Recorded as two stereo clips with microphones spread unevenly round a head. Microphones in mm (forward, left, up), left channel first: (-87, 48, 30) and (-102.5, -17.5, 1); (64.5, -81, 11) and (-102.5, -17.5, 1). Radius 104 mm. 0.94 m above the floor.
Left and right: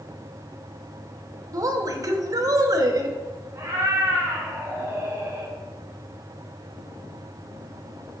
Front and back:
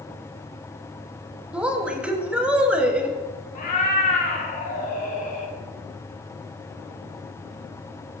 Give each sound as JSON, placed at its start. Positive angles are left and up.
{"t": 1.5, "sound": "a woman speaking", "azimuth_deg": -120, "distance_m": 0.6}
{"t": 3.5, "sound": "a cat meowing", "azimuth_deg": -30, "distance_m": 0.6}